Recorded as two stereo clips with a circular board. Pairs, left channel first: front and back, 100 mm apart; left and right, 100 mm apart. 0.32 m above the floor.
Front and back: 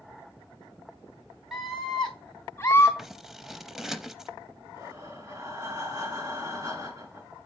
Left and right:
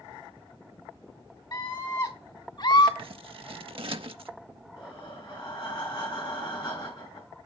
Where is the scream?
95° left, 1.8 m; by 2.9 s 65° left, 2.5 m.